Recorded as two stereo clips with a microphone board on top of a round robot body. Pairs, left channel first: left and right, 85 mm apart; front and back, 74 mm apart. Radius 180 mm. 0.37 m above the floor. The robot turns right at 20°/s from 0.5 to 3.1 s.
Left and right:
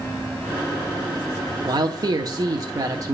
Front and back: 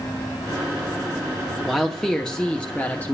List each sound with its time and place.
1.6 s a man speaking: 90° right, 1.2 m; by 3.1 s 60° right, 1.2 m